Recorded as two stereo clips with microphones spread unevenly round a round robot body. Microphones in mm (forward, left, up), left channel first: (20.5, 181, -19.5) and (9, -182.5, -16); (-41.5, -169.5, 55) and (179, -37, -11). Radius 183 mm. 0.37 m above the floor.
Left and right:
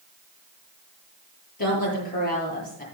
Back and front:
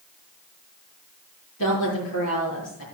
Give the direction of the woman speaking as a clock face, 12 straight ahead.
7 o'clock.